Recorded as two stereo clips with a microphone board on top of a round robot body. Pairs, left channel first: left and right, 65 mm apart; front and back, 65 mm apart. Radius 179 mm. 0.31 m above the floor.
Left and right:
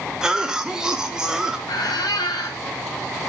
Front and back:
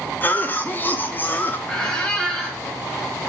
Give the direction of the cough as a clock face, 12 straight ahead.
1 o'clock.